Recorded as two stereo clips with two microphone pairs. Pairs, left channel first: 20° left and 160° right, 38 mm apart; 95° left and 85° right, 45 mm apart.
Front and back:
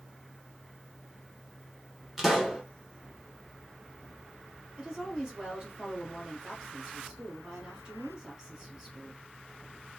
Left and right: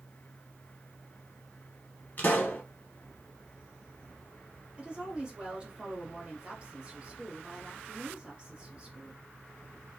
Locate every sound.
2.2 s a pop: 115° left, 1.3 m
4.8 s a woman speaking: 115° right, 1.5 m